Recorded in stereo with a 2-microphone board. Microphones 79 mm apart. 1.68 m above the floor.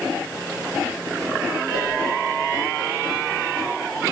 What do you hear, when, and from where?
1.7 s a whoosh: 75° right (ahead or behind), 9 m